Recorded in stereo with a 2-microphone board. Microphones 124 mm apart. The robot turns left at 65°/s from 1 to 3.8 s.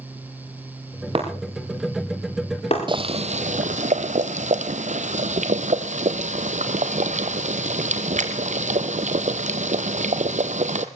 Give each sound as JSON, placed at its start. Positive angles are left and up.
{"t": 1.1, "sound": "breaking glass", "side_deg": -45, "distance_m": 7.0}
{"t": 2.9, "sound": "boiling", "azimuth_deg": -40, "distance_m": 1.3}